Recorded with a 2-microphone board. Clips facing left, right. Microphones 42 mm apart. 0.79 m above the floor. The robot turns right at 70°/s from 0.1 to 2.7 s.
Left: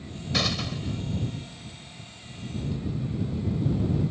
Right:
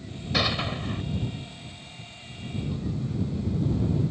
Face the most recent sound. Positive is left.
turn(degrees=-5)